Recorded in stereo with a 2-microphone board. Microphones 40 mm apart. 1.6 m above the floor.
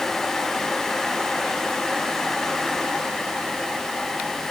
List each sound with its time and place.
Only background noise.